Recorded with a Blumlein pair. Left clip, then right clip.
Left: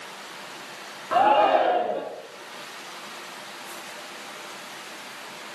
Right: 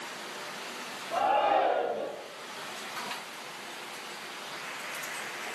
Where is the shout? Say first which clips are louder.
Left 7 dB; 60° left, 3.5 m.